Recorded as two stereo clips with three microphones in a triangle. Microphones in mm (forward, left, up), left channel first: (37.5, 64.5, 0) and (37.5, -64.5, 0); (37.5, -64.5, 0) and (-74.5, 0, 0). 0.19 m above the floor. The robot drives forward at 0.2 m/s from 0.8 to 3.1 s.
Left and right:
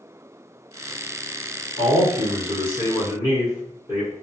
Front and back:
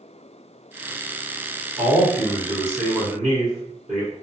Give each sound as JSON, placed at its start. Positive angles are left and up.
{"t": 1.8, "sound": "a man speaking", "azimuth_deg": 135, "distance_m": 1.7}